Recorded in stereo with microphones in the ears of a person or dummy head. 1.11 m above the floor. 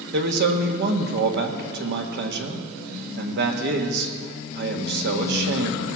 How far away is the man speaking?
About 1.4 m.